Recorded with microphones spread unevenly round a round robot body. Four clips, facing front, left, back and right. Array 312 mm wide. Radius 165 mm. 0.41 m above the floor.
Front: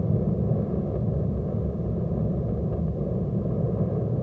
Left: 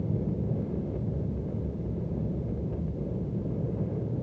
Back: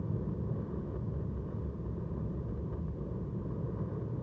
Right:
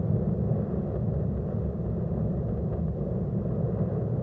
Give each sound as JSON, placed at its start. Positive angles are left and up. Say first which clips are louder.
{"t": 0.0, "sound": "an aircraft", "louder": "right 2 dB, front 12 dB", "azimuth_deg": -20}